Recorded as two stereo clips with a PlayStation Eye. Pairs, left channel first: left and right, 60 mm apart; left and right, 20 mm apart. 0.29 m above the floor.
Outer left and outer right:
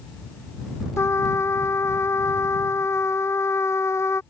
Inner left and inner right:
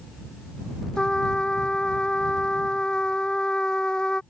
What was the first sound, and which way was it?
A trumpet, 55° left (ahead or behind).